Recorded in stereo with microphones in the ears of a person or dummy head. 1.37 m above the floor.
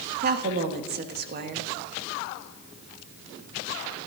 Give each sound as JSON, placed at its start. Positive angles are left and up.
{"t": 0.2, "sound": "a woman speaking", "side_deg": -55, "distance_m": 1.3}